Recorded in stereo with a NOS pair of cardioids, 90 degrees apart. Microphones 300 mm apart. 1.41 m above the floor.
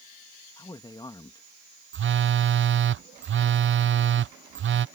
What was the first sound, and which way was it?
A man speaking, 15° left.